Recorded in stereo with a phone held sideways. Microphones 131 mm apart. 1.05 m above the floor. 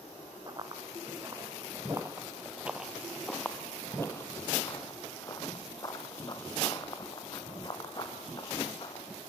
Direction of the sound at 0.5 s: 35° right (ahead or behind).